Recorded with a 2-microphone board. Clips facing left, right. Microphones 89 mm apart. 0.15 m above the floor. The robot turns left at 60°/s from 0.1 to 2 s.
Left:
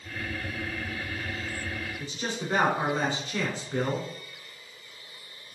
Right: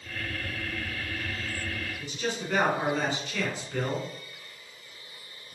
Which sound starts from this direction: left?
A man speaking, at 2.0 s.